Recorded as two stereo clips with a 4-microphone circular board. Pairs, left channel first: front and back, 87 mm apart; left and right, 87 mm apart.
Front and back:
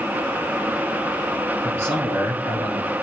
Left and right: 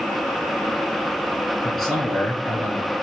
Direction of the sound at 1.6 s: Straight behind.